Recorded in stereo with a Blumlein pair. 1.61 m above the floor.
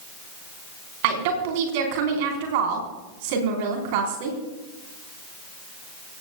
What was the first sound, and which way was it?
A woman speaking, 50° right.